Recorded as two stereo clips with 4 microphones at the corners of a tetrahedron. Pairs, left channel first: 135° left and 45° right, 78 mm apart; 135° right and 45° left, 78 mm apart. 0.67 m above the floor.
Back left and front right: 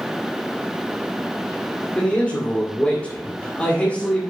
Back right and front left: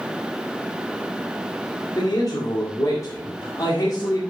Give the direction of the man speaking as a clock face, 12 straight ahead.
5 o'clock.